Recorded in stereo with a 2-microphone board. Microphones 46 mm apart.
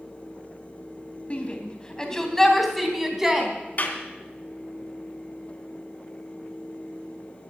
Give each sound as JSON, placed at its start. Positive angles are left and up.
{"t": 1.3, "sound": "a shout", "side_deg": 30, "distance_m": 2.5}
{"t": 3.8, "sound": "a clap", "side_deg": 40, "distance_m": 2.5}